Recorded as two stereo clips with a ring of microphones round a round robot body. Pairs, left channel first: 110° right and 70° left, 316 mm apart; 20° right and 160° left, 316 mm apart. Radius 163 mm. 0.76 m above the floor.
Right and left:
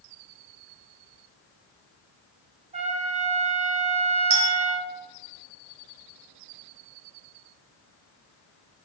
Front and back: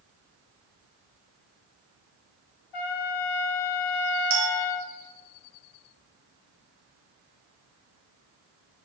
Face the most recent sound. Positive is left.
turn(degrees=85)